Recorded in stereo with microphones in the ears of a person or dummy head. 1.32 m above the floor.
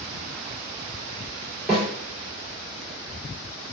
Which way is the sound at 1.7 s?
5° right (ahead or behind).